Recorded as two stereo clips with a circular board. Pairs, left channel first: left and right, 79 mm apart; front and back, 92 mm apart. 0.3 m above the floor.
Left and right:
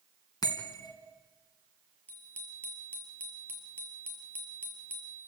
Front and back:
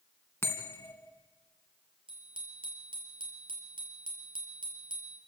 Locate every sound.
0.4 s a bell: 60° left, 3 m
2.1 s a bicycle bell: 160° left, 5 m